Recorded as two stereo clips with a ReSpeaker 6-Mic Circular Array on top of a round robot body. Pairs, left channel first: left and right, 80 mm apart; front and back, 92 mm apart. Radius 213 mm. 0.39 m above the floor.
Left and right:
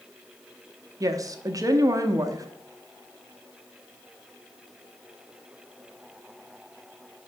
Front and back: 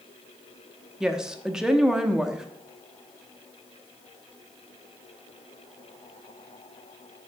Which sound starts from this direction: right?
A woman speaking, at 1.0 s.